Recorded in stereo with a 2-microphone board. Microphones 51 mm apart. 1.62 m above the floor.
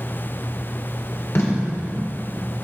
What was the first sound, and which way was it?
Tape being pulled, 65° left (ahead or behind).